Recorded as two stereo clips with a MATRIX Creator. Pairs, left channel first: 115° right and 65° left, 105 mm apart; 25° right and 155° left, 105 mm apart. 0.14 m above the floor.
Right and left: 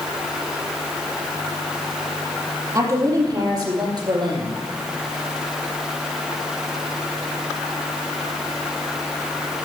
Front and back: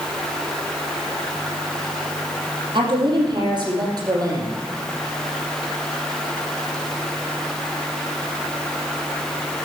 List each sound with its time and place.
2.8 s a woman speaking: 120° left, 5 m; by 4.6 s 105° left, 4.5 m